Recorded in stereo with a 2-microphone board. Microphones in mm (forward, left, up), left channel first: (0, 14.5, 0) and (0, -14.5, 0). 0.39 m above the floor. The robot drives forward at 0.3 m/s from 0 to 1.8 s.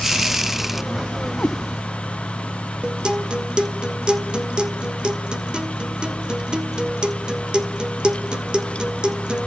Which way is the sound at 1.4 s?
60° left (ahead or behind).